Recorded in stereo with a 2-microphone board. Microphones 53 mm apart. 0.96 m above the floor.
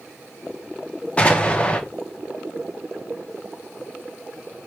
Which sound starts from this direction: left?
An explosion, at 1.2 s.